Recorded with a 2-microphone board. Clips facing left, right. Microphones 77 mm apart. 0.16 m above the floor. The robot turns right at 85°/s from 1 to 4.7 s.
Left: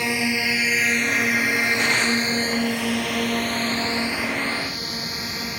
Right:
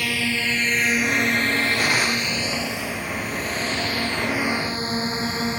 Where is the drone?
25° left (ahead or behind); by 5.6 s 30° right (ahead or behind).